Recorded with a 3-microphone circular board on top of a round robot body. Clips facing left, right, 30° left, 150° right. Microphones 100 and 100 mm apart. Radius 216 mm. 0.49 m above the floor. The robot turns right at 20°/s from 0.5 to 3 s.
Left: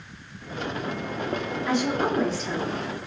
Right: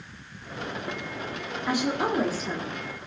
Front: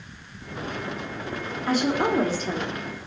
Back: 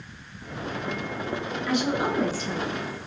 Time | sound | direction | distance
1.7 | a woman speaking | 15° right | 2.5 m